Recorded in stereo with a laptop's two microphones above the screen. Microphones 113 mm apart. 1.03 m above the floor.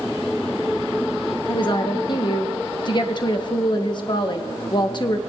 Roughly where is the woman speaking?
Left.